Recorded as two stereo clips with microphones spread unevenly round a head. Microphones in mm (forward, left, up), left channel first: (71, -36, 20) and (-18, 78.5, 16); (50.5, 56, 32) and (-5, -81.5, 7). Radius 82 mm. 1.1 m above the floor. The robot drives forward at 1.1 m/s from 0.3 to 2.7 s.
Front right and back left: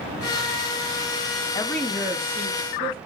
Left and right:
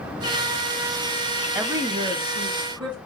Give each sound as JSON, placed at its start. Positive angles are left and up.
{"t": 1.6, "sound": "a woman speaking", "azimuth_deg": -85, "distance_m": 0.5}